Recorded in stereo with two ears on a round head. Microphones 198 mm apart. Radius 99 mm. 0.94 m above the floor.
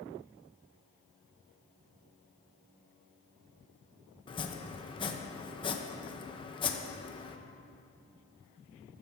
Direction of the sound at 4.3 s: 25° left (ahead or behind).